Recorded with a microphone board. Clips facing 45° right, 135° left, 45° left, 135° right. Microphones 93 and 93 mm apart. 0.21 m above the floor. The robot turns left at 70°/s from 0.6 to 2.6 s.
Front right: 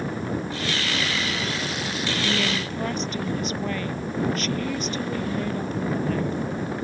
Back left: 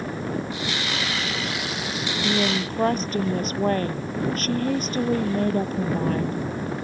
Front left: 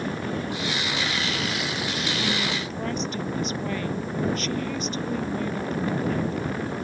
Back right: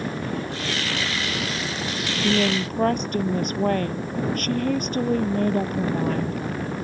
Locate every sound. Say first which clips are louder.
2.2 s a woman speaking: back left 4 dB, back right 10 dB; 145° right; by 6.4 s 175° right